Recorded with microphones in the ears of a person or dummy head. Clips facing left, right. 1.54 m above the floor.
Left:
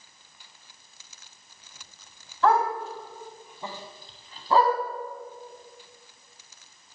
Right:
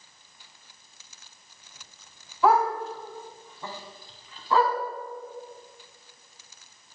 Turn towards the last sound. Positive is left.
turn(degrees=40)  # may be behind; listen again after turning